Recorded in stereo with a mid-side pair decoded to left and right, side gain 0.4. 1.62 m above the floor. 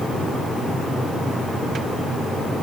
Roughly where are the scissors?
I don't hear scissors.